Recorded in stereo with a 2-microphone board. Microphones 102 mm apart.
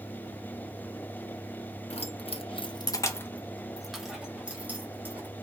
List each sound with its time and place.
1.9 s keys jangling: 65° left (ahead or behind), 0.7 m; by 5.3 s 15° right (ahead or behind), 1.7 m